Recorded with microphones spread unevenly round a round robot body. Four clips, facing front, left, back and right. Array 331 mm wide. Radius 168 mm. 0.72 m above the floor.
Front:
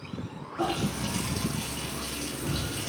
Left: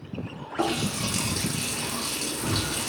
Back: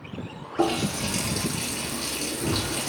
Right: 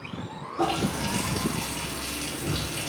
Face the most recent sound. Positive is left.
turn(degrees=155)